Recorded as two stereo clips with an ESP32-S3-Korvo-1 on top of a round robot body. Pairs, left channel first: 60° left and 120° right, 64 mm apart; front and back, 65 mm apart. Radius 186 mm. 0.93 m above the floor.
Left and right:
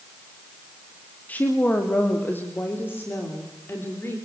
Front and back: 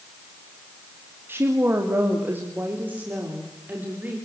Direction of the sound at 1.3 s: 125° left.